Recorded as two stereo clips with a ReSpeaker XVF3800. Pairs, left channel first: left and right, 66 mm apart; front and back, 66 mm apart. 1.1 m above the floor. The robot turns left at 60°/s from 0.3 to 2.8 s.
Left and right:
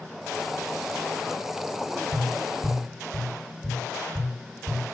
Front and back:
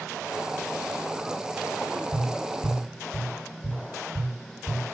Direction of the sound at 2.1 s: 45° right.